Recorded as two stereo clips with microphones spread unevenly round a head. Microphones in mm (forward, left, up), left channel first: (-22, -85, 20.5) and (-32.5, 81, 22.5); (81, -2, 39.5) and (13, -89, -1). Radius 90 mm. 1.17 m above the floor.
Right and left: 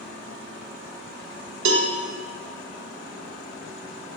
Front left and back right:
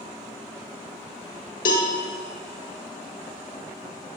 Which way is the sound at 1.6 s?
80° left.